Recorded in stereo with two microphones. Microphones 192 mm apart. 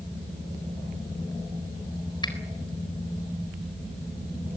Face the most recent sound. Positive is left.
turn(degrees=25)  # may be behind; listen again after turning